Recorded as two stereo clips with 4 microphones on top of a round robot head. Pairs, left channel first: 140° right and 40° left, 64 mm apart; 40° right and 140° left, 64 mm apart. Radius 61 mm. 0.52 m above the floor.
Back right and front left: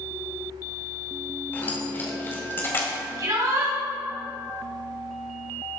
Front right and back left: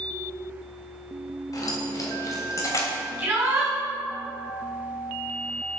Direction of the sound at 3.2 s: 70° left.